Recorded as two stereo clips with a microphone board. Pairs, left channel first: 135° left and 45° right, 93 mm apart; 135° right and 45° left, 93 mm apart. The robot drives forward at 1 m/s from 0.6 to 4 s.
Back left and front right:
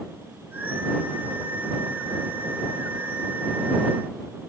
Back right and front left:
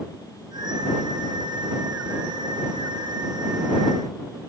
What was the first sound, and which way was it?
Only background noise.